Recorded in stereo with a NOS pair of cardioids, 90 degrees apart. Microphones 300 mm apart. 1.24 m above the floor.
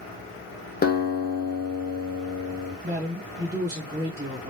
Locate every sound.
0.8 s a guitar: 30° left, 0.8 m
2.8 s a man speaking: 30° right, 1.6 m